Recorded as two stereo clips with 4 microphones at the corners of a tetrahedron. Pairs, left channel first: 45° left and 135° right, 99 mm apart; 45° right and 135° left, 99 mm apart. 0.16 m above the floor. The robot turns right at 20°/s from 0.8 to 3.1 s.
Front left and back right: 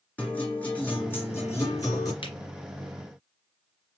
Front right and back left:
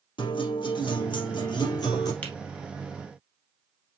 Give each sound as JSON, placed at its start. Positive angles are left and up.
{"t": 0.2, "sound": "a guitar", "azimuth_deg": -25, "distance_m": 3.5}
{"t": 2.2, "sound": "a finger snap", "azimuth_deg": 25, "distance_m": 3.0}